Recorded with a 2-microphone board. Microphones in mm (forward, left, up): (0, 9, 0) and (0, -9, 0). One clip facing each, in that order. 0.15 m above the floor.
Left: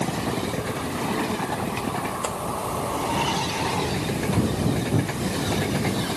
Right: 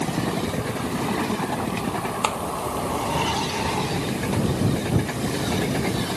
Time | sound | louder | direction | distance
2.2 | a clap | right 4 dB | 60° right (ahead or behind) | ?